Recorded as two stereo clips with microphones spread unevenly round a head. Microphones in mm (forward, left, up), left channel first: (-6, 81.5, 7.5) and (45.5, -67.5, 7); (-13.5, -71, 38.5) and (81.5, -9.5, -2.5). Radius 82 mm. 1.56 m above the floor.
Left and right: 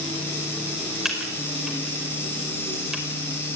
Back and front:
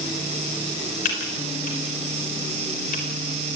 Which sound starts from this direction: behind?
Typing on a keyboard, at 1.1 s.